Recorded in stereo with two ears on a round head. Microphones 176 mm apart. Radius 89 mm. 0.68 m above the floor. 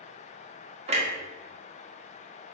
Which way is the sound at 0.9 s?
30° right (ahead or behind).